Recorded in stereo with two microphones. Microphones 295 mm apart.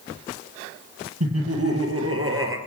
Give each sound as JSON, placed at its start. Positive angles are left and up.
{"t": 1.2, "sound": "laughter", "side_deg": -55, "distance_m": 4.0}